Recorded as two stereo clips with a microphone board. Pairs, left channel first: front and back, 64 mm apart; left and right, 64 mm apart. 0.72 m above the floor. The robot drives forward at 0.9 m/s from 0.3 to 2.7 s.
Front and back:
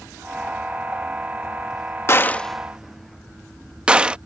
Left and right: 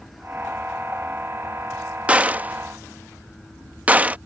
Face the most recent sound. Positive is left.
turn(degrees=-125)